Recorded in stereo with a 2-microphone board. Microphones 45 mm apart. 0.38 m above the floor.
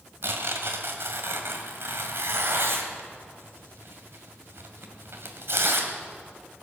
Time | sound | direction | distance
0.2 | tearing paper | 60° right (ahead or behind) | 1.9 m